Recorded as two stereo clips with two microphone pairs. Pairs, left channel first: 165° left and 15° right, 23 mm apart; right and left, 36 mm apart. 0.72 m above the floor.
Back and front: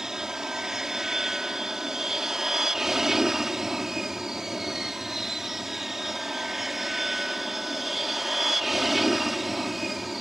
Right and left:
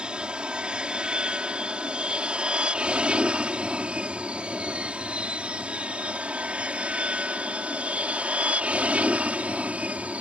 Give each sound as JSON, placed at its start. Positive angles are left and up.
{"t": 0.0, "sound": "an aircraft", "azimuth_deg": 40}